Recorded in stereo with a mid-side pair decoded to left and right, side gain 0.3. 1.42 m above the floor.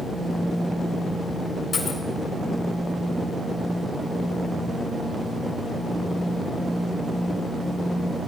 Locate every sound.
1.7 s a dropped coin: 65° left, 4 m